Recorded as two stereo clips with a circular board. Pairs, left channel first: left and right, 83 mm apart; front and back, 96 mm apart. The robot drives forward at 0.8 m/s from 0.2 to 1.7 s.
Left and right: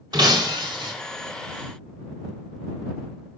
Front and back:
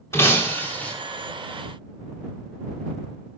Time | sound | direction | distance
0.1 | breaking glass | 60° right | 3 m